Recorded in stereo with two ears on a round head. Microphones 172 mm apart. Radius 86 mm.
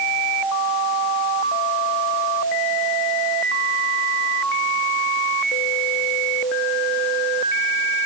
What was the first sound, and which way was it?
Only background noise.